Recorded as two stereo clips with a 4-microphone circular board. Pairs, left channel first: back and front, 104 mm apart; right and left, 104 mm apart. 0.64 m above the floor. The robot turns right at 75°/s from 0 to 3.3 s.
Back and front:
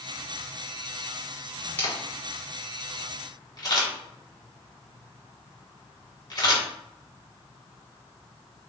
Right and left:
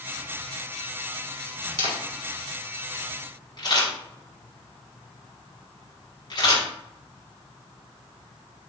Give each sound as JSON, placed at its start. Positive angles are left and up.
{"t": 1.8, "sound": "a camera shutter", "azimuth_deg": 110, "distance_m": 1.5}